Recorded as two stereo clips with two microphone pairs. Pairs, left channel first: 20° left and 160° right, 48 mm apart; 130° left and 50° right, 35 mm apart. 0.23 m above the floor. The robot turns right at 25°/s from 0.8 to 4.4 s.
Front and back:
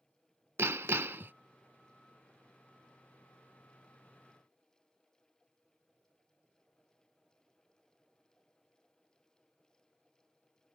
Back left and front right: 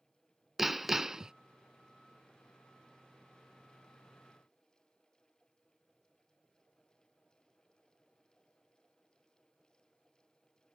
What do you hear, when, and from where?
0.6 s hammering: 135° right; by 1.3 s 125° right